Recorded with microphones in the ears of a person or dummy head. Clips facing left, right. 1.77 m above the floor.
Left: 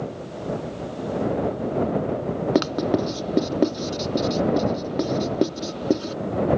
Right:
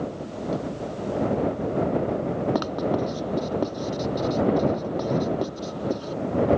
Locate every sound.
2.5 s writing: 30° left (ahead or behind)